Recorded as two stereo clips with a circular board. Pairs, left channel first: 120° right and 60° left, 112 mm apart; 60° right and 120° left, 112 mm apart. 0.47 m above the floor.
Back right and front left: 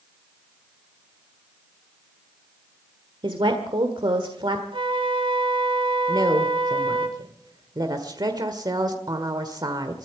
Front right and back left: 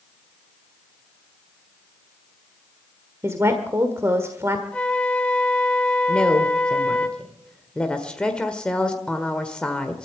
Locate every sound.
3.2 s a woman speaking: 65° left, 1.5 m
4.7 s a flute: 20° left, 1.6 m
6.1 s a woman speaking: 20° left, 1.4 m